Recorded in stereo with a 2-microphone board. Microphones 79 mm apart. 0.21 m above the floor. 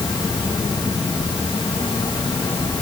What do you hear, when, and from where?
0.0 s an insect: 90° left, 8 m